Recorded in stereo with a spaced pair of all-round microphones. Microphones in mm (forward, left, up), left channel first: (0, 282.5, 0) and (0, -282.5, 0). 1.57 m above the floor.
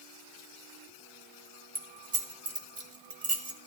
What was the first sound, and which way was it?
Keys jangling, 60° right (ahead or behind).